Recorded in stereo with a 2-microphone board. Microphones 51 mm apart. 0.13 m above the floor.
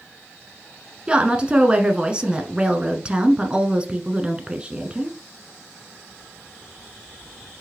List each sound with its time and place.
1.1 s a woman speaking: 20° right (ahead or behind), 1.3 m